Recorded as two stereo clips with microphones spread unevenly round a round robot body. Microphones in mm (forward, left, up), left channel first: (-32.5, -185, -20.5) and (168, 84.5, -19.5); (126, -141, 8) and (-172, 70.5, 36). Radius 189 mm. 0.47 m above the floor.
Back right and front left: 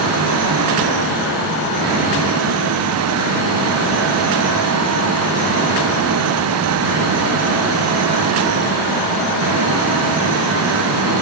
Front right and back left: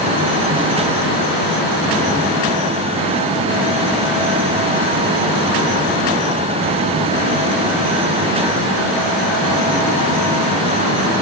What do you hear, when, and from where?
Only background noise.